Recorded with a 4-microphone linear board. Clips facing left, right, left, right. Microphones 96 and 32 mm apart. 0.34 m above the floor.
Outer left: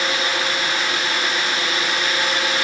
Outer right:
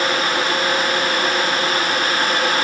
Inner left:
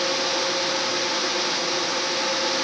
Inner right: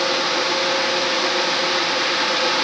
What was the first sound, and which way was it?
Only background noise.